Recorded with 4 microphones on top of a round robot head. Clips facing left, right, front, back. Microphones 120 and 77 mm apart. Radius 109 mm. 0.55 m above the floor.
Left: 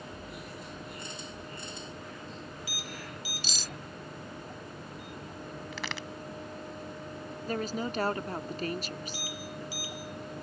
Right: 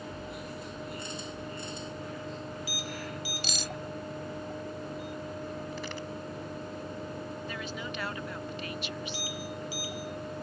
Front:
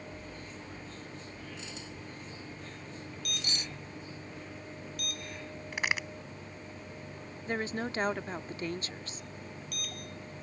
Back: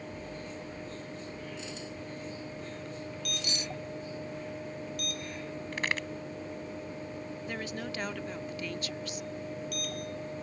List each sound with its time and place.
3.4 s cutlery clinking: 55° right
5.7 s a crack: 80° left
7.5 s a woman speaking: 50° left